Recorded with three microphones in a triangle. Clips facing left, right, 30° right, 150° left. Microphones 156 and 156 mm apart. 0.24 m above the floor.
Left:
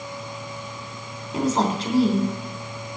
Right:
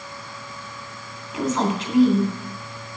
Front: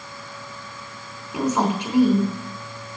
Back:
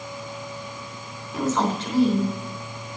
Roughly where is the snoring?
No snoring in this recording.